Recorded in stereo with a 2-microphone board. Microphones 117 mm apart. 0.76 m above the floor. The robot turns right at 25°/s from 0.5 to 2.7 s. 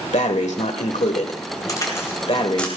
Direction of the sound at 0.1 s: 80° left.